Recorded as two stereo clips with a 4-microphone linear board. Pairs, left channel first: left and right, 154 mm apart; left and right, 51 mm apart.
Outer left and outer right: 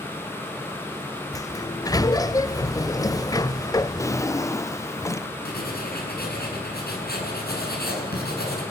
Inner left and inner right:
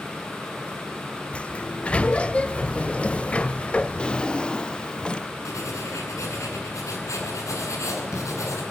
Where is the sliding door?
20° left (ahead or behind), 0.8 m.